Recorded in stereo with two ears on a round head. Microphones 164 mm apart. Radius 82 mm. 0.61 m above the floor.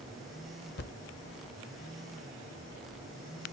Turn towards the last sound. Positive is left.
turn(degrees=60)  # may be behind; listen again after turning